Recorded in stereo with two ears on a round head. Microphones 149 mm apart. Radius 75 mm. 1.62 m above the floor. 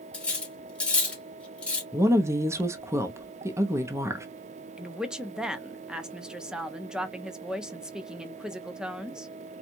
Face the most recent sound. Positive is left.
turn(degrees=-5)  # may be behind; listen again after turning